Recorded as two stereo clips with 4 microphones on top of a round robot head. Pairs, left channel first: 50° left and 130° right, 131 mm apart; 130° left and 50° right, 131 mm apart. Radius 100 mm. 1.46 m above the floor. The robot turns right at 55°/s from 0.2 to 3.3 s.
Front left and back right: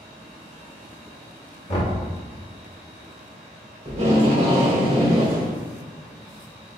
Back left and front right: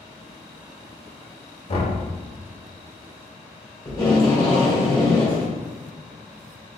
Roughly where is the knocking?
Left.